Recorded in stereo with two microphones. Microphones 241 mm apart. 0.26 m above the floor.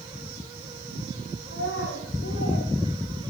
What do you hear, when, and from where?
1.5 s a child speaking: 65° left (ahead or behind), 8 m; by 3.3 s 60° left (ahead or behind), 9 m